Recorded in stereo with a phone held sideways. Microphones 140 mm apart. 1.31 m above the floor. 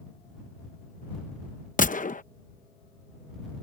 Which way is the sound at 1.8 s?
70° left (ahead or behind).